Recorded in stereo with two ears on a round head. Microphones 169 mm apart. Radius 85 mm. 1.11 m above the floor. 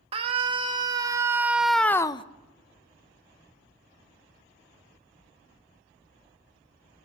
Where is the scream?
30° right (ahead or behind), 1.5 m; by 2.2 s 30° left (ahead or behind), 0.5 m.